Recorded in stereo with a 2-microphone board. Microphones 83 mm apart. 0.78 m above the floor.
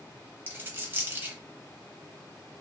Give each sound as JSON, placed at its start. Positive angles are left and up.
{"t": 0.5, "sound": "a dropped coin", "side_deg": -25, "distance_m": 0.6}